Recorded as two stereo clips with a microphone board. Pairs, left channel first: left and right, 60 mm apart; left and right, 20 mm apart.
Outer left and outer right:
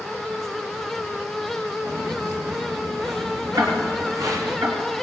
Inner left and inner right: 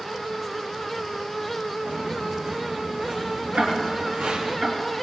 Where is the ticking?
75° right (ahead or behind), 2.5 m.